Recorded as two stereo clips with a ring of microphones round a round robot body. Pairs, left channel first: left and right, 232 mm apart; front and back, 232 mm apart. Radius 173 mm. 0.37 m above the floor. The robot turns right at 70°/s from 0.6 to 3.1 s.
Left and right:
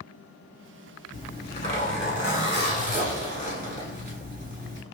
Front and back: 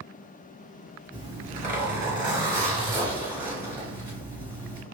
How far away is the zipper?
About 1.8 m.